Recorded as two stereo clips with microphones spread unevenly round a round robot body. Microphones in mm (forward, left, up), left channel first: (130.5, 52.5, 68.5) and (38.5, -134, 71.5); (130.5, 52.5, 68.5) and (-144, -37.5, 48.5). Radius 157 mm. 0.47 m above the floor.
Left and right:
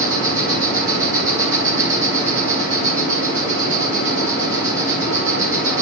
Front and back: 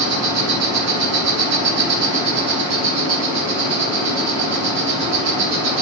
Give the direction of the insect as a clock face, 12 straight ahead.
6 o'clock.